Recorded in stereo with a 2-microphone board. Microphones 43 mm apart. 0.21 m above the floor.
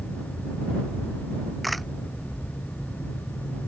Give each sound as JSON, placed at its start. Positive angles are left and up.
{"t": 1.6, "sound": "a camera shutter", "side_deg": 0}